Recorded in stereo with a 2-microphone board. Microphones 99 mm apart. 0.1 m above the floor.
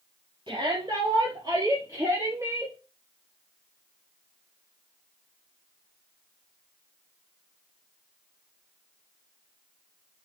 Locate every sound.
0.5 s a shout: 55° right (ahead or behind), 3 m; by 2.8 s 20° right (ahead or behind), 3 m